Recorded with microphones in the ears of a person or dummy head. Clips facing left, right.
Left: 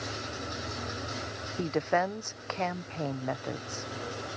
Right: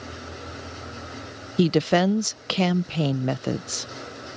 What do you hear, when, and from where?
1.6 s a woman speaking: 40° right (ahead or behind)